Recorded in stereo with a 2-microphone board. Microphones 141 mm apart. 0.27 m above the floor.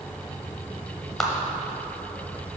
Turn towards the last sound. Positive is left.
turn(degrees=5)  # may be behind; listen again after turning